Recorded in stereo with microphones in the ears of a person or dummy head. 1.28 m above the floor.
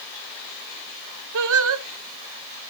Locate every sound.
1.3 s singing: 70° right (ahead or behind), 0.7 m